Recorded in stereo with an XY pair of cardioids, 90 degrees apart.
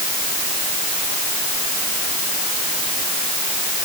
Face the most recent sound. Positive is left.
No sound to turn to.